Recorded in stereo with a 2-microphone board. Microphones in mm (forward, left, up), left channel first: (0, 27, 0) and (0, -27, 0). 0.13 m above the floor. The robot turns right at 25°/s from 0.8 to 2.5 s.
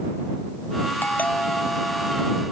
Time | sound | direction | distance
1.0 | a doorbell | 145° left | ?